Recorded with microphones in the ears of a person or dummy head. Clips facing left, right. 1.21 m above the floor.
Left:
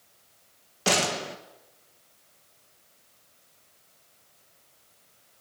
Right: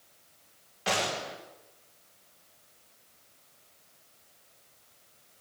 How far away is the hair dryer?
No hair dryer in this recording.